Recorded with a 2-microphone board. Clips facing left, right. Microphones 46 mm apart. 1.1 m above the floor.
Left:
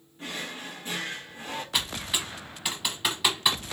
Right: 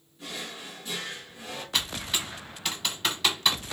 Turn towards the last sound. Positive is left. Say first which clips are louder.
# right 1 dB
turn(degrees=10)  # may be behind; listen again after turning